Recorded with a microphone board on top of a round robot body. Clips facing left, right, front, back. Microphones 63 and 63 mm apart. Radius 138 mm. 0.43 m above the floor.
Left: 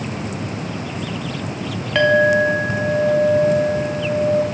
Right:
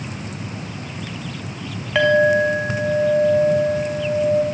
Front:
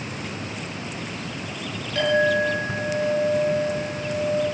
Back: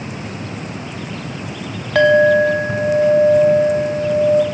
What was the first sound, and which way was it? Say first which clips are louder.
A clink: left 1 dB, back 9 dB; 175° right.